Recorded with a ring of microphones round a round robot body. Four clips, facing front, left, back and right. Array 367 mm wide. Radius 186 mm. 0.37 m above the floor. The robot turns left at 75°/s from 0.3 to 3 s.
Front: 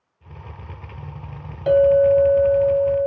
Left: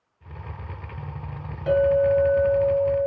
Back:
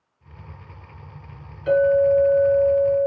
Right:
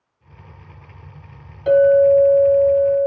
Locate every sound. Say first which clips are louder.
1.7 s a clink: right 7 dB, front 3 dB; 30° right, 1.5 m; by 3.1 s 130° right, 1.5 m